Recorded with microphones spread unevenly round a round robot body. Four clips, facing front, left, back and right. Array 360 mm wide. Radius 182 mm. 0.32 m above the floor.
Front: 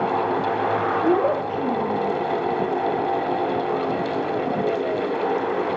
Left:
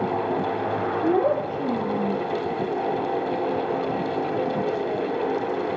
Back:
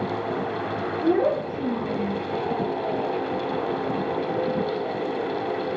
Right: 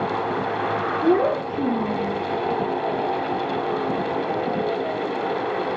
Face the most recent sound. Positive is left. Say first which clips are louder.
# right 2 dB, back 2 dB
turn(degrees=-75)